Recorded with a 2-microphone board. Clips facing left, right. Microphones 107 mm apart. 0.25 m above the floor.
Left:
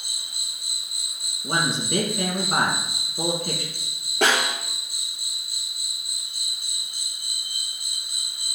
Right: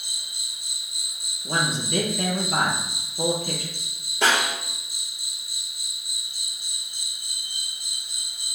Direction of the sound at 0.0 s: 65° left (ahead or behind).